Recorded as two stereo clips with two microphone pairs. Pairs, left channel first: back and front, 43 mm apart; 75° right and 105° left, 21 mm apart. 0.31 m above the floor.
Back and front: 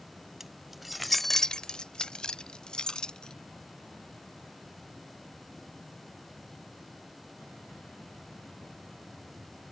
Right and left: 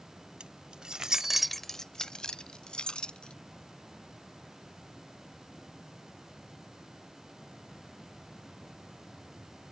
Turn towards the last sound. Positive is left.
turn(degrees=-110)